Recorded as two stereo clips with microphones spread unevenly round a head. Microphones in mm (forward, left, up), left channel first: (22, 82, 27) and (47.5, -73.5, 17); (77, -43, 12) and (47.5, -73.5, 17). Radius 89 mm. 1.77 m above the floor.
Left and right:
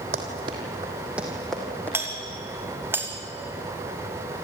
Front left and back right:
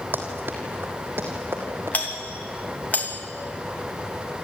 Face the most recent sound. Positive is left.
turn(degrees=-5)